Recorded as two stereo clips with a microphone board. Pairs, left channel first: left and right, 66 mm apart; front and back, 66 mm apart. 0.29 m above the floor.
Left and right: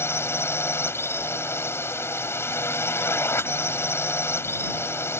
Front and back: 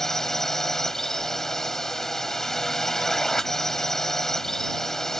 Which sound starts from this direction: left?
A drone, at 0.0 s.